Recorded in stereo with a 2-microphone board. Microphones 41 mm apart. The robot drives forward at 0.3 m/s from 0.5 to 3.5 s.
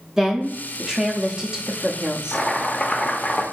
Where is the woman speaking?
15° right (ahead or behind), 0.7 m; by 2.4 s 20° right (ahead or behind), 0.5 m.